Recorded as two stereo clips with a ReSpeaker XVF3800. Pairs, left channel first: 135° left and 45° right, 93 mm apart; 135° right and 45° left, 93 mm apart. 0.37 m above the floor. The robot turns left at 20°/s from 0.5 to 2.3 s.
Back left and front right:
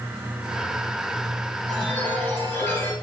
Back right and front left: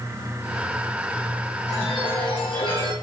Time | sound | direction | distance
1.7 | a chime | 145° right | 1.8 m